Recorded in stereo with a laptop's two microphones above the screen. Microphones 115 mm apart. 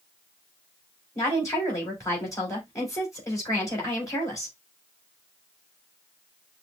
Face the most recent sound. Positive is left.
turn(degrees=25)  # may be behind; listen again after turning